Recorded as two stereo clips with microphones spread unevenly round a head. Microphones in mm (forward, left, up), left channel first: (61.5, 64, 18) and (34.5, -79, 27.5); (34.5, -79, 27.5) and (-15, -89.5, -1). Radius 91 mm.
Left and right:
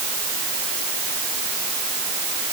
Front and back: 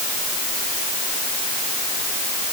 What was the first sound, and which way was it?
Only background noise.